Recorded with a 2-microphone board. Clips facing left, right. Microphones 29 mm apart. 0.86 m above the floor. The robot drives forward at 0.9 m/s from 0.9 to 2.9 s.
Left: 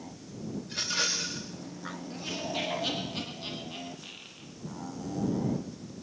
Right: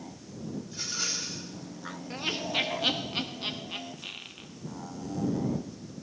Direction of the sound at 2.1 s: 40° right (ahead or behind).